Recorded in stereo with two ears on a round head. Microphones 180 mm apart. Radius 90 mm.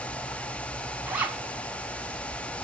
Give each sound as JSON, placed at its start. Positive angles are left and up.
{"t": 1.1, "sound": "a zipper", "side_deg": -5, "distance_m": 1.2}